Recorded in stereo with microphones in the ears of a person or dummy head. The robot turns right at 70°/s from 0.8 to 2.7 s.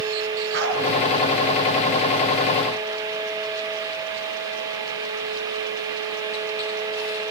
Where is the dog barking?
65° right (ahead or behind), 4.5 m.